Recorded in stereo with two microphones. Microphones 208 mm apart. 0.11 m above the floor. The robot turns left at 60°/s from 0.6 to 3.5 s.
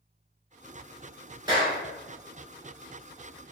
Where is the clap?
20° right (ahead or behind), 1.2 m; by 1.8 s 15° right (ahead or behind), 1.2 m.